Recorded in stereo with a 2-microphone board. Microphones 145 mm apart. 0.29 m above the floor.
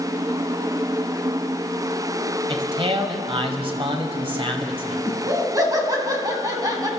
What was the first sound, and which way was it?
A man speaking, 40° right (ahead or behind).